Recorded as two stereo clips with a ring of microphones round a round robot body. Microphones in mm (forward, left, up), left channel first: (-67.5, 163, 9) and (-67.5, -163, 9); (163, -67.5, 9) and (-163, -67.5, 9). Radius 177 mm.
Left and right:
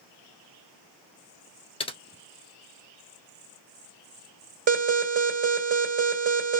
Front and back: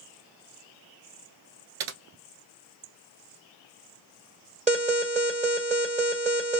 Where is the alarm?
125° right, 2.5 m.